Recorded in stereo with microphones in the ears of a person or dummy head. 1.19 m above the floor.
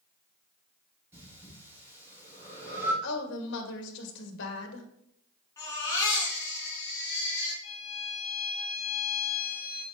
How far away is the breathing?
About 5 m.